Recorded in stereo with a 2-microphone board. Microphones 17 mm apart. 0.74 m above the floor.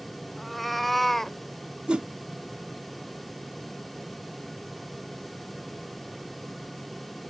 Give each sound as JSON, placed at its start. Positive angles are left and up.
{"t": 0.4, "sound": "a cat meowing", "side_deg": 5}
{"t": 1.9, "sound": "a whoosh", "side_deg": -80}